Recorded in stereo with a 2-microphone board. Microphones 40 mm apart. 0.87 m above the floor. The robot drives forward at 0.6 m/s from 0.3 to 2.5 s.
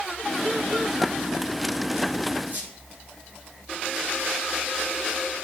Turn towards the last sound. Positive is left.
turn(degrees=-45)  # may be behind; listen again after turning